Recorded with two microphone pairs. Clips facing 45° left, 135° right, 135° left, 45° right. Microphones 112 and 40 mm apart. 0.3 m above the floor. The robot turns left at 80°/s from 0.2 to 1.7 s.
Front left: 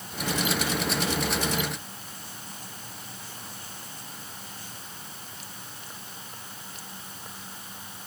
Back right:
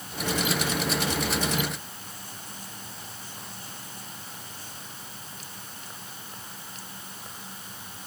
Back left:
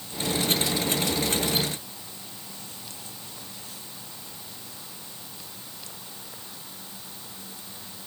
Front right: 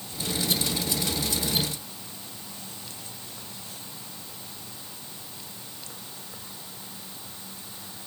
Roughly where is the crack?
No crack in this recording.